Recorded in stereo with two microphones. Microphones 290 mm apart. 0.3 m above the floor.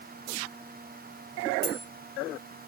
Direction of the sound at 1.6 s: 35° right (ahead or behind).